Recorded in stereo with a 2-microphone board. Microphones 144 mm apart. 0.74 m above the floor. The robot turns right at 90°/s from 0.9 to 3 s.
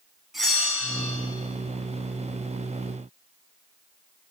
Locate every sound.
0.3 s a bell: centre (ahead or behind), 8 m; by 1.2 s 25° left (ahead or behind), 8 m